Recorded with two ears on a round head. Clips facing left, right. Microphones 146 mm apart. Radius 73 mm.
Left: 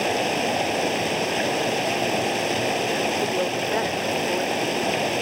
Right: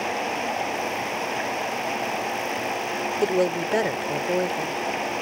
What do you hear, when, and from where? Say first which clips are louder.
0.0 s running water: left 4 dB; 40° left (ahead or behind)
3.2 s a woman speaking: right 2 dB; 35° right (ahead or behind)